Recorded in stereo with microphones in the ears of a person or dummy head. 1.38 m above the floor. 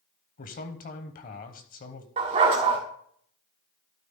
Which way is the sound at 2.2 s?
35° right (ahead or behind).